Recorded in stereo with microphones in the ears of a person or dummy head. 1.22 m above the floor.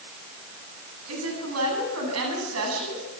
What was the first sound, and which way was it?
A woman speaking, 90° right.